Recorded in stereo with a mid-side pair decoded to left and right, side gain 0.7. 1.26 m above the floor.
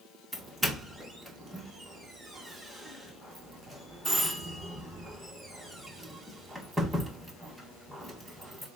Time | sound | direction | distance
0.3 | a doorbell | 5° right | 1.5 m